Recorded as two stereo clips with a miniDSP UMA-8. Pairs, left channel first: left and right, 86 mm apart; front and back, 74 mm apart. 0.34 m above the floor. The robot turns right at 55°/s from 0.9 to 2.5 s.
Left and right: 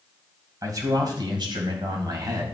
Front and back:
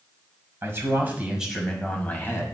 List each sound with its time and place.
0.6 s a man speaking: 130° right, 2.5 m; by 2.4 s 45° right, 2.5 m